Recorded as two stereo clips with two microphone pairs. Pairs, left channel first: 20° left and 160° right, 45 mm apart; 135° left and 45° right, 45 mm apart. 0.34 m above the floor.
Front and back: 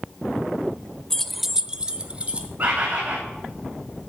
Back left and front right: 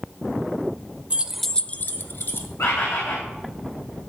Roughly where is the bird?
Behind left.